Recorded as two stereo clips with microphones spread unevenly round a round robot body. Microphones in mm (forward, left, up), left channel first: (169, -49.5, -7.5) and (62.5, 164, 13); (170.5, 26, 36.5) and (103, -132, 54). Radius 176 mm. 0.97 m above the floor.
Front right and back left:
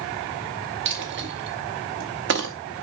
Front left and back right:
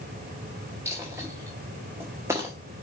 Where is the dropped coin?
165° left, 0.6 m.